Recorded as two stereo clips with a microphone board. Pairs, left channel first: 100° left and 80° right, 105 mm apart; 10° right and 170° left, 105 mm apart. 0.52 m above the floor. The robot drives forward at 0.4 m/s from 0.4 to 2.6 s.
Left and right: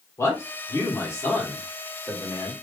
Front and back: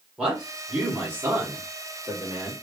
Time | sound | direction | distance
0.2 | a man speaking | 100° left | 1.4 m